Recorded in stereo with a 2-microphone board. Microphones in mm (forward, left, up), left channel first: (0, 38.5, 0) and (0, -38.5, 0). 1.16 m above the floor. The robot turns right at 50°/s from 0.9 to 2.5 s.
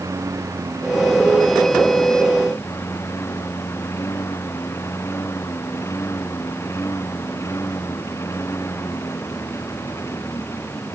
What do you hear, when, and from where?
0.0 s a lawn mower: 40° right; by 11.0 s 40° left